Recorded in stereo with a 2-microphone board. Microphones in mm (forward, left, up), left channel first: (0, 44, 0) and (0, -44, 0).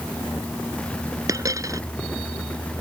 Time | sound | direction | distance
1.3 | a dropped coin | 40° right (ahead or behind) | ?